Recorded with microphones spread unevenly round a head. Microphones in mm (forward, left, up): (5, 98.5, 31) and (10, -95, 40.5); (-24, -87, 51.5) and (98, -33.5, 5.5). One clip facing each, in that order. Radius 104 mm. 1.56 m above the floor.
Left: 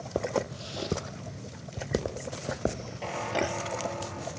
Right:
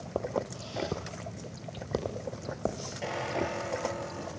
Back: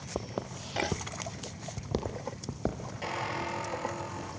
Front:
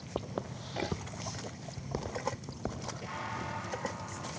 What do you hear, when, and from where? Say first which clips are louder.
0.1 s footsteps: left 3 dB, back 1 dB; 155° left, 1.7 m; by 2.9 s 165° left, 3 m
3.0 s a squeak: left 2 dB, back 8 dB; 165° right, 5.5 m